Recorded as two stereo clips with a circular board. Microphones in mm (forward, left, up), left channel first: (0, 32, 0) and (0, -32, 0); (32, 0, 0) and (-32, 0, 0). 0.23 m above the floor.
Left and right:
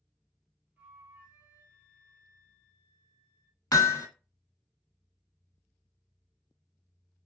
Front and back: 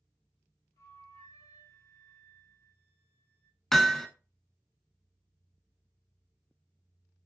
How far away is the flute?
About 1.1 m.